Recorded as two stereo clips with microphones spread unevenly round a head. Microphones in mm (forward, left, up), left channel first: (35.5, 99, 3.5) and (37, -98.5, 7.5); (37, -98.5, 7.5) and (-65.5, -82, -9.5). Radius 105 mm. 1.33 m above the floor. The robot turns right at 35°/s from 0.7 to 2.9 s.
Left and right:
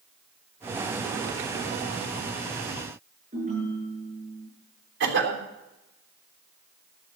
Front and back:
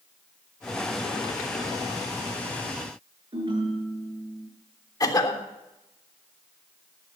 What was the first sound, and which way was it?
A ringtone, 150° right.